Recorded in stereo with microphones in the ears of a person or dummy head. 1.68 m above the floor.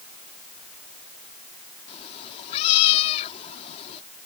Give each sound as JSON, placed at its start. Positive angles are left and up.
{"t": 1.9, "sound": "a cat meowing", "side_deg": 35}